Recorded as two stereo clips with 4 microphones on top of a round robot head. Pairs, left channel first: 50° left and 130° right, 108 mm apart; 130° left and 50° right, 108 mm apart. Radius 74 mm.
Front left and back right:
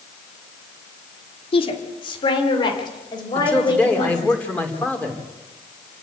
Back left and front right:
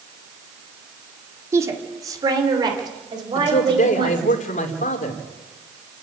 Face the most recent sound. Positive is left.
turn(degrees=130)